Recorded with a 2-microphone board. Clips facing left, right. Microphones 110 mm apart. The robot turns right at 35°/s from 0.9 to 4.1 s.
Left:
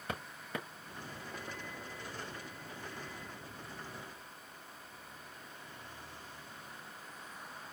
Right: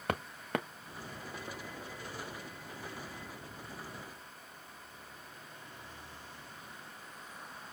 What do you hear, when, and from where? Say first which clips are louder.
0.1 s footsteps: right 7 dB; 75° right (ahead or behind), 0.6 m